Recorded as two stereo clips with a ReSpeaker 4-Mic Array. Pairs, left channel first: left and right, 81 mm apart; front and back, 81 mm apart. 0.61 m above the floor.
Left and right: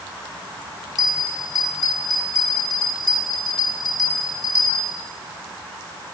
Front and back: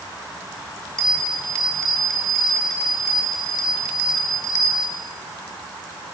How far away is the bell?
About 1.7 m.